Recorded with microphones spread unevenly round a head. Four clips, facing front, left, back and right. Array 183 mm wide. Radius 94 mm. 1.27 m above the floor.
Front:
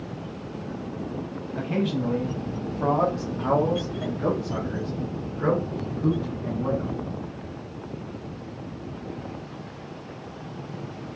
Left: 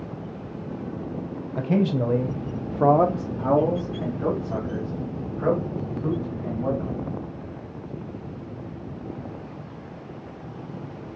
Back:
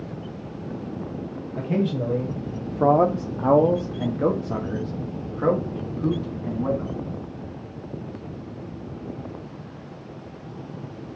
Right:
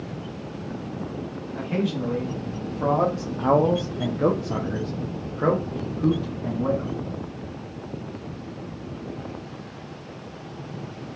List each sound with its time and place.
1.6 s a man speaking: 105° left, 1.0 m; by 7.0 s 115° right, 2 m